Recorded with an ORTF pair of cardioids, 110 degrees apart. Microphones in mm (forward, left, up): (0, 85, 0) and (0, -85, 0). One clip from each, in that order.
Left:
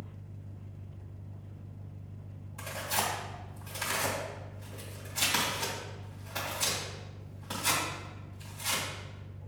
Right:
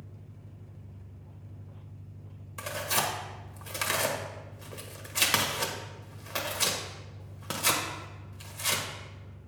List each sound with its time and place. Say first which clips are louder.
0.0 s an engine running: left 3 dB; 5° left, 1.0 m
2.6 s tearing paper: right 3 dB; 65° right, 1.6 m